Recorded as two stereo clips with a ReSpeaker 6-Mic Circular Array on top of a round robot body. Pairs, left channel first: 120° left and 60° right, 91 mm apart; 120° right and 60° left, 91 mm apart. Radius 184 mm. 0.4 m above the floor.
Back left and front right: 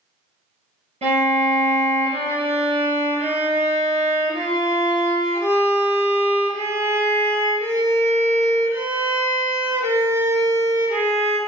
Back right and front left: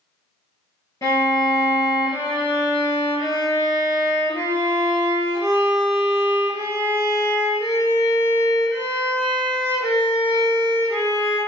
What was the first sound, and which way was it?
A violin, 60° right.